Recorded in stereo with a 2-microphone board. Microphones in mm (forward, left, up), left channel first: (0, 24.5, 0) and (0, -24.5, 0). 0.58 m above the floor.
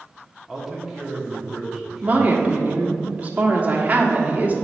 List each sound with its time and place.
0.5 s a man speaking: centre (ahead or behind), 1.4 m
2.0 s a woman speaking: 30° right (ahead or behind), 1.1 m